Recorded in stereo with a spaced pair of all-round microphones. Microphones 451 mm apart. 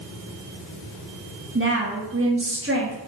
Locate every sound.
1.6 s a woman speaking: 30° right (ahead or behind), 1.4 m